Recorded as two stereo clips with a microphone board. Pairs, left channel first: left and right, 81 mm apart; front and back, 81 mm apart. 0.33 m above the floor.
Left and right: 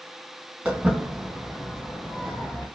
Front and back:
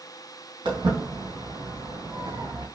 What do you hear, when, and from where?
0.7 s footsteps: 165° right, 2.5 m; by 2.7 s 155° left, 2.5 m